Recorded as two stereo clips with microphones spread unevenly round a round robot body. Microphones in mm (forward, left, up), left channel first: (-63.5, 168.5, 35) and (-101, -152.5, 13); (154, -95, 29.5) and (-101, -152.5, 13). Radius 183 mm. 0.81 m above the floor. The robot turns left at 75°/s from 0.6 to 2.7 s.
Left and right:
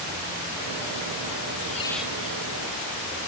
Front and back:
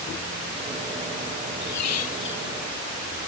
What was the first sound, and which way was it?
A squeak, 20° left.